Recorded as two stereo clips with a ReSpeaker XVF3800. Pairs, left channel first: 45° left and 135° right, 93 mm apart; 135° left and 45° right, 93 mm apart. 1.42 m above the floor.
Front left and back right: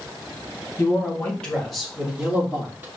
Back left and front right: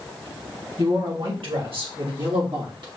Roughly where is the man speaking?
Ahead.